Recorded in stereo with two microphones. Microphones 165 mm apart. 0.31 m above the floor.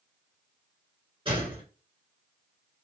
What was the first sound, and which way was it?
A gunshot, 30° right (ahead or behind).